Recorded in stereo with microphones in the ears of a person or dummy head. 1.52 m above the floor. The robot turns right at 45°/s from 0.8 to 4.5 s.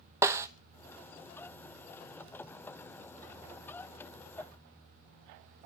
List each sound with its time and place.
0.2 s a snare drum: 20° right (ahead or behind), 0.9 m